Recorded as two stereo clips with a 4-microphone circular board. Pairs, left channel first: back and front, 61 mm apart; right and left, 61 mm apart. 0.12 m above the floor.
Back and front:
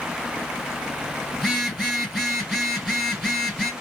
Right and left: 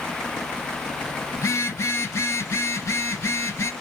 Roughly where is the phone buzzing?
Right.